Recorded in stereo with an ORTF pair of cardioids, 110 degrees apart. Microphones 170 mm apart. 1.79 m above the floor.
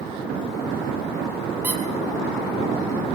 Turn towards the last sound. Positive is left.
turn(degrees=-10)